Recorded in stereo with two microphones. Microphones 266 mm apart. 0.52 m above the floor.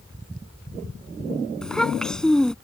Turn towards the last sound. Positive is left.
turn(degrees=0)  # may be behind; listen again after turning